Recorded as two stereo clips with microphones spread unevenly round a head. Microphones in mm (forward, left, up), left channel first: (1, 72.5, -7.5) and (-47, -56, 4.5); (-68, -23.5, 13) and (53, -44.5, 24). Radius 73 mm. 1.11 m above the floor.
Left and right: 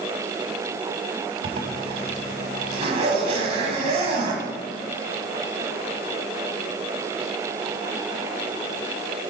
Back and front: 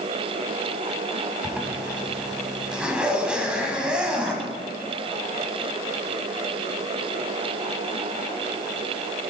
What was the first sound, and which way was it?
A zipper, 85° right.